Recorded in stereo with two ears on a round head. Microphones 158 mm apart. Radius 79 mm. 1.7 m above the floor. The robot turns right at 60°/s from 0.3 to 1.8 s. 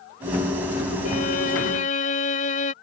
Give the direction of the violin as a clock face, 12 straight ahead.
10 o'clock.